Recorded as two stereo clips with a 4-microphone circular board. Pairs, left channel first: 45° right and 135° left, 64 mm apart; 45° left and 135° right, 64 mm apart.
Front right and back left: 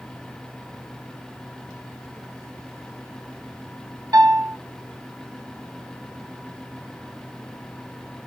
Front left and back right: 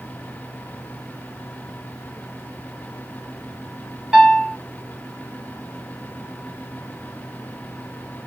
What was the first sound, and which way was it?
A piano, 145° left.